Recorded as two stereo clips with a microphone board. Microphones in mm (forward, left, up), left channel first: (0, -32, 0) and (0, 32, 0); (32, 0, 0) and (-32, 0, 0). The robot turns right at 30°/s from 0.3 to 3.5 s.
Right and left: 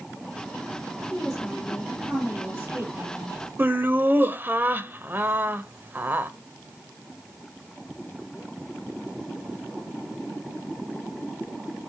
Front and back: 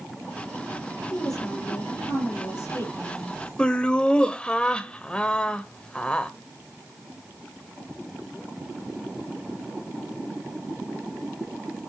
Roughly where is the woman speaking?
Ahead.